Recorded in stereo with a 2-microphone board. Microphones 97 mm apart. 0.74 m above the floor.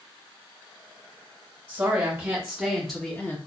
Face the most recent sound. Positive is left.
turn(degrees=20)  # may be behind; listen again after turning